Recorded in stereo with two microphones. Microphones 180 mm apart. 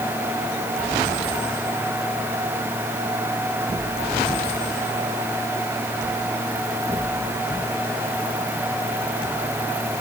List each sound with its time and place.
Only background noise.